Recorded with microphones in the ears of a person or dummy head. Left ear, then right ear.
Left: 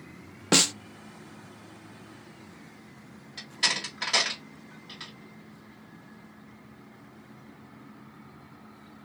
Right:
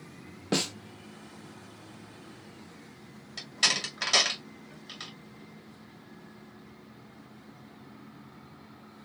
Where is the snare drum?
35° left (ahead or behind), 0.5 m.